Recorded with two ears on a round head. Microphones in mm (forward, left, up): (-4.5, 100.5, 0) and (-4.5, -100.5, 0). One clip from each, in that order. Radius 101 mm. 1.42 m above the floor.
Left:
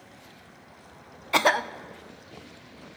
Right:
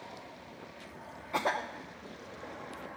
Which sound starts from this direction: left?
A cough, at 1.3 s.